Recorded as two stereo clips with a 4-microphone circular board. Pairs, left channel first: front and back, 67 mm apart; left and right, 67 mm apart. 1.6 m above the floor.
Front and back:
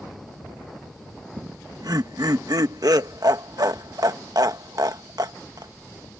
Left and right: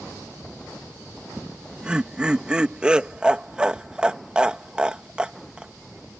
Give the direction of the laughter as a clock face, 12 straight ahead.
6 o'clock.